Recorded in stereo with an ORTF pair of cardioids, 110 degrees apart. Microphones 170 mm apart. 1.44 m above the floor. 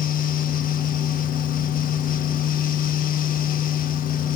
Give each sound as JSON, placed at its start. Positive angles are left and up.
{"t": 0.0, "sound": "a fan", "azimuth_deg": 55, "distance_m": 1.3}